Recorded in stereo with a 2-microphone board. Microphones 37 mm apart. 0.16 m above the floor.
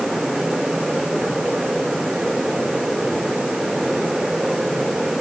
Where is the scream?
No scream in this recording.